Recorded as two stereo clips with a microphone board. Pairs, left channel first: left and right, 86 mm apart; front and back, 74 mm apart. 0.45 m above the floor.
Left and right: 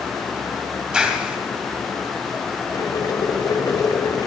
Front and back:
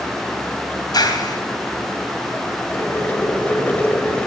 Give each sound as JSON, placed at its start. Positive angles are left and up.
{"t": 0.9, "sound": "a clap", "azimuth_deg": -10, "distance_m": 2.5}
{"t": 2.7, "sound": "boiling", "azimuth_deg": 65, "distance_m": 1.7}